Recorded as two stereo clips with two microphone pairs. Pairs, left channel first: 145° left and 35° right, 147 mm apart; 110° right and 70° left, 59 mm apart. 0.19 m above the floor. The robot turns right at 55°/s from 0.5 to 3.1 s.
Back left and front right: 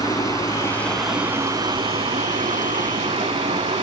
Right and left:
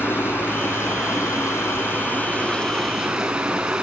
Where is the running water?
155° right, 0.7 m; by 3.8 s 10° right, 0.7 m.